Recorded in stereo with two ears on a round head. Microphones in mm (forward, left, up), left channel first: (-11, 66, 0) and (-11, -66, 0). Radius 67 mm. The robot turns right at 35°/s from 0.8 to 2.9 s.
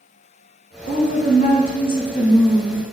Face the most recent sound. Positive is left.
turn(degrees=165)